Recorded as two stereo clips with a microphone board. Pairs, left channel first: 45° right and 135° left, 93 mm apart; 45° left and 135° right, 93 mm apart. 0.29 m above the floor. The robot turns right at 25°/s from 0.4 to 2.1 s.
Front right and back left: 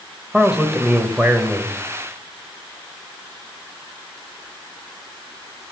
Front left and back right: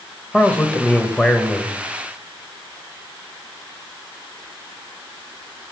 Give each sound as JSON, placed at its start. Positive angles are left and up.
{"t": 0.3, "sound": "a man speaking", "azimuth_deg": 70, "distance_m": 1.0}